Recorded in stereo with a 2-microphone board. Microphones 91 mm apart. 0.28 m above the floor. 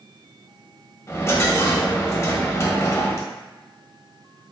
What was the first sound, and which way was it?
A dropped coin, 35° left (ahead or behind).